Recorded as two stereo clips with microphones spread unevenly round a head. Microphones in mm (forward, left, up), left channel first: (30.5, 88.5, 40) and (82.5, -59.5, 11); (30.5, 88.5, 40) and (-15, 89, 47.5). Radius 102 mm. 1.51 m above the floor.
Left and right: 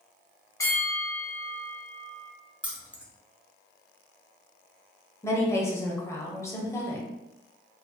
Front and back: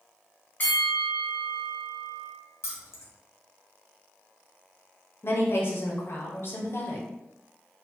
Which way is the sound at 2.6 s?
15° left.